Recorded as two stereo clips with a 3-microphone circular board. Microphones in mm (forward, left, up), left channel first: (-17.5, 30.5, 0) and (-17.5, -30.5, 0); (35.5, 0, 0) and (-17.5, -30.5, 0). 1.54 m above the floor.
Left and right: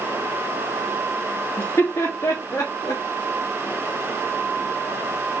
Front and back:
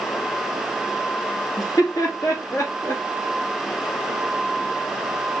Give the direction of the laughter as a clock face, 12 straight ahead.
10 o'clock.